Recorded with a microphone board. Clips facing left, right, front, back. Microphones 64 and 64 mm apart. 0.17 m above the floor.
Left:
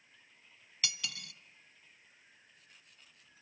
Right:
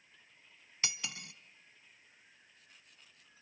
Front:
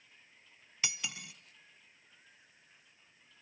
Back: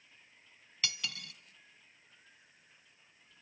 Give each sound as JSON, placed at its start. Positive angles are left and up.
{"t": 0.8, "sound": "cutlery clinking", "azimuth_deg": -55, "distance_m": 0.7}